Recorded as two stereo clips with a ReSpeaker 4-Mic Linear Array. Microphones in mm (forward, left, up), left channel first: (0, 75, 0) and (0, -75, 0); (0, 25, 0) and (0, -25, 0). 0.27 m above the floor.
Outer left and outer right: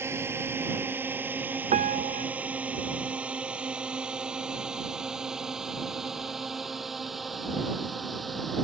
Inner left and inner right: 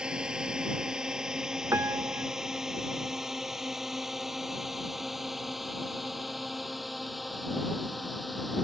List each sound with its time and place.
0.0 s a drone: 15° right (ahead or behind); by 8.6 s centre (ahead or behind)
1.7 s a piano: 60° right (ahead or behind)